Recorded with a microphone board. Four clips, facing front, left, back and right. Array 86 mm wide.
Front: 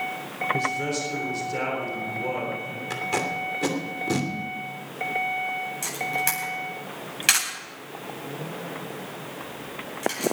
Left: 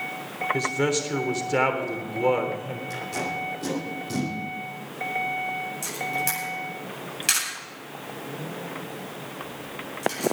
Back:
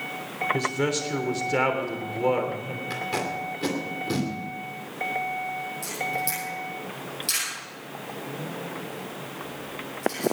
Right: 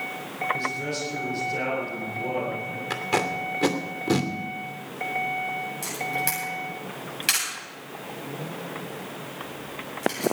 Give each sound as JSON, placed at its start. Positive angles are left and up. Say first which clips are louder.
{"t": 0.5, "sound": "a man speaking", "louder": "left 5 dB, back 3 dB", "azimuth_deg": 125, "distance_m": 3.5}
{"t": 2.9, "sound": "tape being pulled", "louder": "right 6 dB, front 2 dB", "azimuth_deg": -75, "distance_m": 2.5}
{"t": 5.8, "sound": "a camera shutter", "louder": "even, front 1 dB", "azimuth_deg": -5, "distance_m": 8.5}